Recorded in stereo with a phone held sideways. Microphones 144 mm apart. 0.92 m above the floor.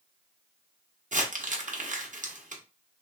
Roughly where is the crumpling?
Right.